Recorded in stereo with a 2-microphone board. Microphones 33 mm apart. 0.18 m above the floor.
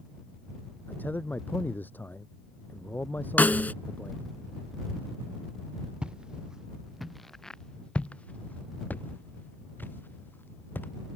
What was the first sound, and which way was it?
A man speaking, 70° left (ahead or behind).